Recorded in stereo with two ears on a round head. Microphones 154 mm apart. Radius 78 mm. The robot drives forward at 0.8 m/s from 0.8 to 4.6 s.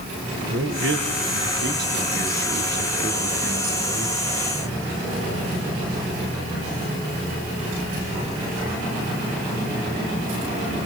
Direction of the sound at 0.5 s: 75° right (ahead or behind).